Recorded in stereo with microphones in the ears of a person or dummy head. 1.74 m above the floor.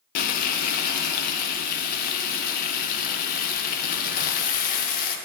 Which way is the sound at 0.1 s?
45° left (ahead or behind).